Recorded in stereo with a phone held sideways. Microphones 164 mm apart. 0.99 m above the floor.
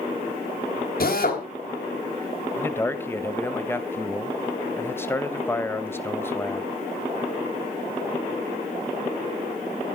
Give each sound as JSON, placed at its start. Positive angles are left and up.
{"t": 1.0, "sound": "a drill", "side_deg": 65, "distance_m": 3.5}
{"t": 2.6, "sound": "a man speaking", "side_deg": 15, "distance_m": 1.1}